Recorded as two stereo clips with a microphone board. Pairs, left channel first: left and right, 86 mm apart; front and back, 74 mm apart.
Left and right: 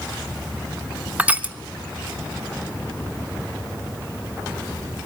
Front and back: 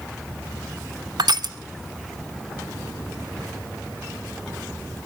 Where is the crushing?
165° right, 0.9 m.